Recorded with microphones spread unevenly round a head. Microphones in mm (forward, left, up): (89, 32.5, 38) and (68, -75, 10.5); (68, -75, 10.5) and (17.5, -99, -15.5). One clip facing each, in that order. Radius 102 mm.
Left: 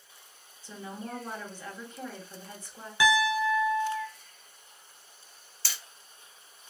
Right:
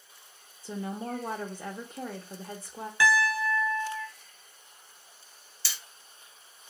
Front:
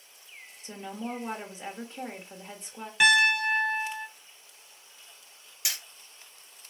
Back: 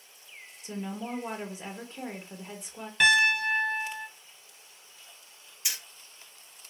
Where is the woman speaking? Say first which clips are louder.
Right 5 dB, back 1 dB; 65° right, 0.9 m.